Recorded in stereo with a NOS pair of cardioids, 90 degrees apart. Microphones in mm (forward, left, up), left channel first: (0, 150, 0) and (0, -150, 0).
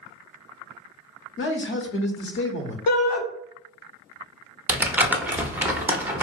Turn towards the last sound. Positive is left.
turn(degrees=-5)